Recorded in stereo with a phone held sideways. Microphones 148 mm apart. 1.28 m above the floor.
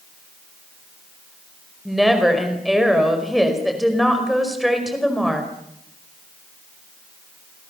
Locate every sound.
1.9 s a woman speaking: centre (ahead or behind), 5 m